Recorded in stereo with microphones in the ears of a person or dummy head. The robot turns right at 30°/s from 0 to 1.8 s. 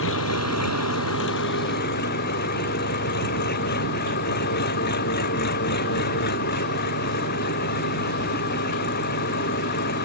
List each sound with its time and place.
0.0 s an engine running: 70° left; by 10.0 s 125° left